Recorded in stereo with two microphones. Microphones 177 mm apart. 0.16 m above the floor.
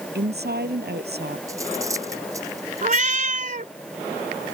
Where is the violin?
No violin in this recording.